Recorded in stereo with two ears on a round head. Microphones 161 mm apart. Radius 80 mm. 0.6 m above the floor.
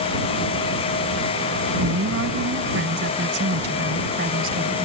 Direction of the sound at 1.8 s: 80° right.